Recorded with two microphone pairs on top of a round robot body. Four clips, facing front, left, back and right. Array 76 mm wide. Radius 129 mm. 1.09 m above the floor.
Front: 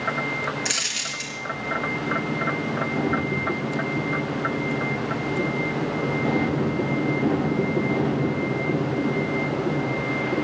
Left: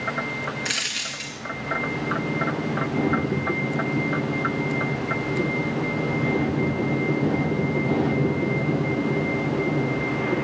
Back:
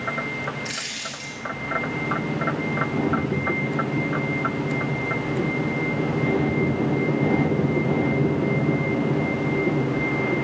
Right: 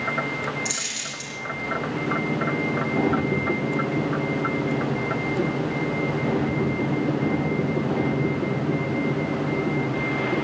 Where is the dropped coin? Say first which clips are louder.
Left 2 dB, front 2 dB; 65° left, 1.6 m.